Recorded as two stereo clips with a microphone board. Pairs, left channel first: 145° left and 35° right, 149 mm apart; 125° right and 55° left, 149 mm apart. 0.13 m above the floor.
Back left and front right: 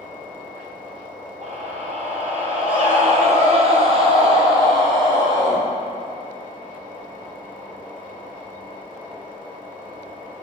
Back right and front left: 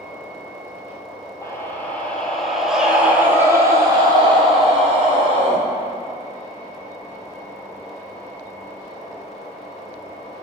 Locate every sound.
1.4 s a scream: 55° right, 3.5 m; by 5.6 s 25° left, 4 m